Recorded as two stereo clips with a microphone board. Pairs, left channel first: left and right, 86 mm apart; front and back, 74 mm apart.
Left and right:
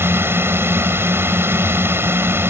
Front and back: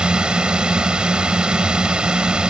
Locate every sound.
0.0 s a drone: 115° right